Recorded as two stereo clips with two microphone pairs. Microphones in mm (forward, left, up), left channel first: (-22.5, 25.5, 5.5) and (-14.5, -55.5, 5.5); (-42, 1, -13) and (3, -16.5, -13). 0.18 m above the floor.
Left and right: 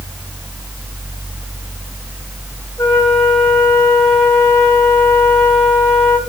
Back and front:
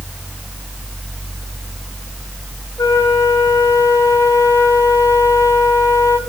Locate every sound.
2.8 s a flute: 160° left, 4 m